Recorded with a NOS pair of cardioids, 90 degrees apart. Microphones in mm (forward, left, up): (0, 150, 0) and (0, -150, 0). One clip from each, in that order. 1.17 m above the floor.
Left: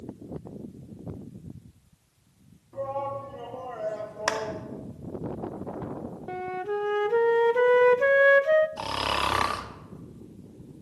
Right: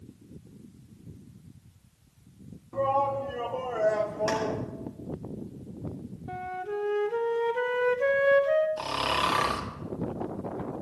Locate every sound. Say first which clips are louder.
2.7 s a shout: right 6 dB; 40° right, 2.5 m
4.3 s a clap: left 6 dB; 70° left, 2.5 m
6.3 s a flute: left 3 dB; 25° left, 0.5 m
8.8 s snoring: even; 15° left, 1.3 m